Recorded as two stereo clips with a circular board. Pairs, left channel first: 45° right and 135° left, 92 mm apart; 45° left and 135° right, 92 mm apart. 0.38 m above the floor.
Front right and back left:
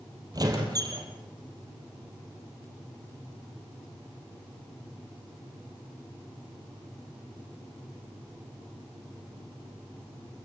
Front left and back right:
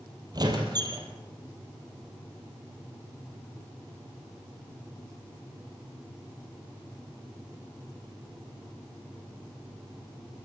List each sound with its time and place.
0.3 s a squeak: 175° right, 4 m